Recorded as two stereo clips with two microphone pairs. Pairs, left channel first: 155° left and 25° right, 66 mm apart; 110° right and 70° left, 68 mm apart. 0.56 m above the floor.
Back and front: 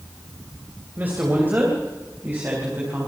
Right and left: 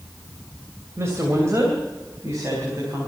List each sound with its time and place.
1.0 s a woman speaking: 30° left, 2.5 m